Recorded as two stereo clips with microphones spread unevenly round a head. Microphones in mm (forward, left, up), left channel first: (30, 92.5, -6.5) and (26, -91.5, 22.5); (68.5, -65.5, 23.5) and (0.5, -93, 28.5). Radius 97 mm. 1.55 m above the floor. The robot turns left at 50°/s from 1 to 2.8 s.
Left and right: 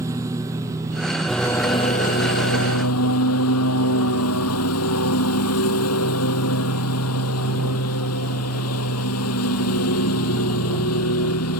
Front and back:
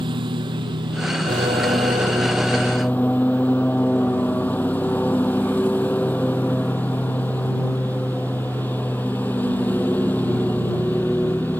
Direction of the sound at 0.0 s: 165° right.